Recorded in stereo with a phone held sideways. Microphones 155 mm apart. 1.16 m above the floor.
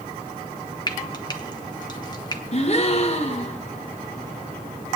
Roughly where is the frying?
Left.